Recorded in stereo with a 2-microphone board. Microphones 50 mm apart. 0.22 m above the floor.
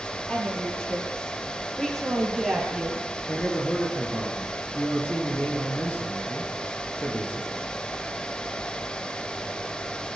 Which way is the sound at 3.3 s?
35° left (ahead or behind).